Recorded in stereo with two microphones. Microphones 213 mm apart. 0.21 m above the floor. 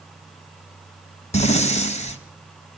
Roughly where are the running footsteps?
I don't hear running footsteps.